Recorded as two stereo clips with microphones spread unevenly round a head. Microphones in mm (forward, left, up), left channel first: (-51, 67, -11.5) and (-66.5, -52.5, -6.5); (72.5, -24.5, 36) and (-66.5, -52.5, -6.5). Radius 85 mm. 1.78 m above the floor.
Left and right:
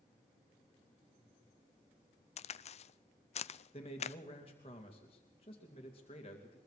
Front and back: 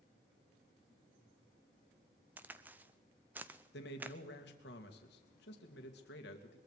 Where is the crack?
100° left, 0.6 m.